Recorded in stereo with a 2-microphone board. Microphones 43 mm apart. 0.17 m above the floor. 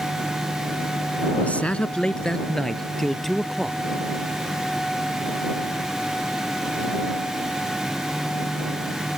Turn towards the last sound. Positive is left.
turn(degrees=0)  # may be behind; listen again after turning